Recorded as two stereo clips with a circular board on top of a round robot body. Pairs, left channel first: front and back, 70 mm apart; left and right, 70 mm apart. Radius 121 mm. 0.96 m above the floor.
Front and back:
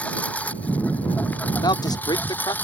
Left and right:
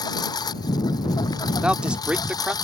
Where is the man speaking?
15° right.